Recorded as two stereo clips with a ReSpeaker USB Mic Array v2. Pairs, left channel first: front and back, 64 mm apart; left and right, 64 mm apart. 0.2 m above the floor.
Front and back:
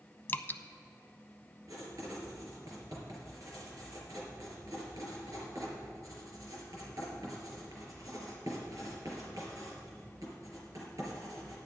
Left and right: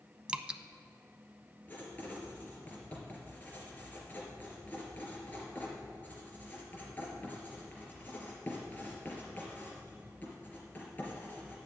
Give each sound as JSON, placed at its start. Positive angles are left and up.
{"t": 0.3, "sound": "dripping", "azimuth_deg": -25, "distance_m": 0.5}
{"t": 1.7, "sound": "writing", "azimuth_deg": 155, "distance_m": 4.0}